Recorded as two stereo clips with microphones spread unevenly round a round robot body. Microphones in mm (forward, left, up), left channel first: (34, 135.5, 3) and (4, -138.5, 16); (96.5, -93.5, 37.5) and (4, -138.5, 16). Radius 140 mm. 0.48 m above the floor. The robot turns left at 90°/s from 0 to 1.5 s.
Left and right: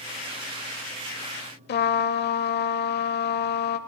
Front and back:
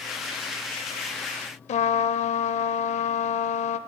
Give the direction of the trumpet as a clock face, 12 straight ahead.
11 o'clock.